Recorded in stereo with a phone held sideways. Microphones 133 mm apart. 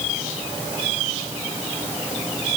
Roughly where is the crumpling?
I don't hear crumpling.